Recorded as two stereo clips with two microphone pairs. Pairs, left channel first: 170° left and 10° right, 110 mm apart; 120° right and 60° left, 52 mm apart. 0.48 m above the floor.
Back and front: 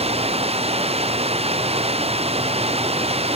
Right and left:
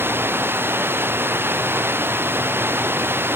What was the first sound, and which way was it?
Running water, 10° left.